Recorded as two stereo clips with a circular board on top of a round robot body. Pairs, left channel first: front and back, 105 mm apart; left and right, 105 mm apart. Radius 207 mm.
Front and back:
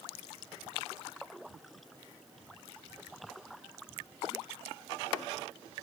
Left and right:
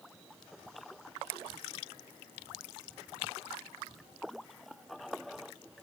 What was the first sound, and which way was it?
Only background noise.